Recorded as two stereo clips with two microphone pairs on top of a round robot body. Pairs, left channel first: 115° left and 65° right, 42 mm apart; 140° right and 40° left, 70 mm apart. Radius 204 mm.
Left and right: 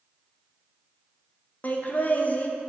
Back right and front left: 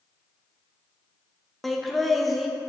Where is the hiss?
I don't hear a hiss.